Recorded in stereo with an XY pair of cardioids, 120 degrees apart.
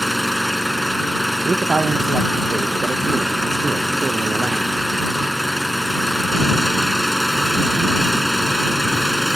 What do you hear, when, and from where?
0.0 s an engine running: straight ahead
1.4 s a man speaking: 25° right